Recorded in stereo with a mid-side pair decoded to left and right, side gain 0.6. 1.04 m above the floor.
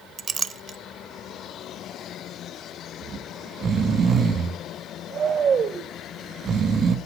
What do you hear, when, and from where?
0.2 s a clink: 30° right, 0.6 m
3.0 s snoring: 35° right, 1.3 m